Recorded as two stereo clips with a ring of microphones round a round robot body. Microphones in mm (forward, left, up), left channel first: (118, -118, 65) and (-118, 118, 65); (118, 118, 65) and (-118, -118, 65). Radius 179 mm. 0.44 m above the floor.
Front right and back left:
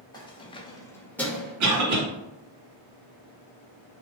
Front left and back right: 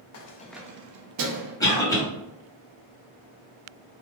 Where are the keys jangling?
30° left, 0.6 m; by 1.5 s 135° right, 1.2 m.